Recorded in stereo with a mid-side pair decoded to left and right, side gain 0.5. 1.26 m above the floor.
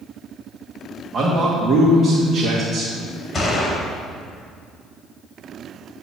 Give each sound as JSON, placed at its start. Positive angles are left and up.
{"t": 1.1, "sound": "a man speaking", "azimuth_deg": -40, "distance_m": 2.0}
{"t": 3.3, "sound": "a gunshot", "azimuth_deg": 30, "distance_m": 2.5}